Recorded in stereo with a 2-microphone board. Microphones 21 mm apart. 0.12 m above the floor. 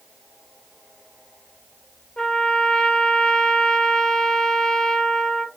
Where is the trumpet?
60° left (ahead or behind), 0.9 m.